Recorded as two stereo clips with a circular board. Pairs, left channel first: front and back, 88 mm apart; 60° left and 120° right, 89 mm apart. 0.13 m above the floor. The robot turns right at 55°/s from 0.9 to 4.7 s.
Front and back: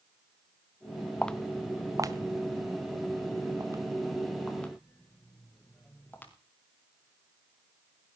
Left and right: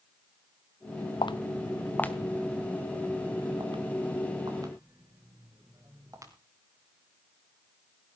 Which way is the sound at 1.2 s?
75° left.